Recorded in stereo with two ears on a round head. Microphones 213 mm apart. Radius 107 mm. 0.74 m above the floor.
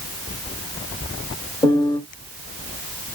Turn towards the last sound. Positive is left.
turn(degrees=20)  # may be behind; listen again after turning